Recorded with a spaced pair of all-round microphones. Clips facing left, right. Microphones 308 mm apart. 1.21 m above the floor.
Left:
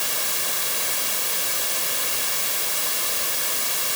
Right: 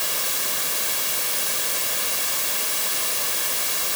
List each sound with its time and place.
Only background noise.